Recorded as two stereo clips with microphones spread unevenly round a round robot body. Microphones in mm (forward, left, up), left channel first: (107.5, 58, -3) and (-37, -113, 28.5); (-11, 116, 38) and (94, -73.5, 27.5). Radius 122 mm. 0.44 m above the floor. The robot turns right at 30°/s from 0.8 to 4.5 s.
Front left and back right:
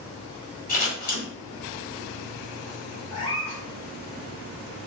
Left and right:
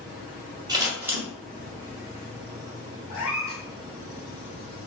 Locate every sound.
0.7 s scissors: 5° left, 1.6 m; by 1.2 s 20° left, 1.6 m
3.1 s a cat meowing: 125° left, 1.8 m; by 3.6 s 140° left, 1.8 m